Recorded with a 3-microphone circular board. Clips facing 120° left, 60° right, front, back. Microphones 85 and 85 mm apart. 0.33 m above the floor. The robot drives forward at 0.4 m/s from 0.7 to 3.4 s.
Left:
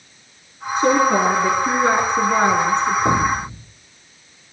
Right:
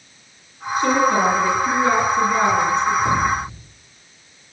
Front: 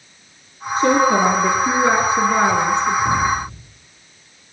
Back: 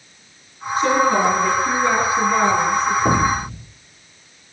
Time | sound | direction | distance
0.8 | a woman speaking | 55° left | 5.5 m
3.0 | an explosion | 175° left | 2 m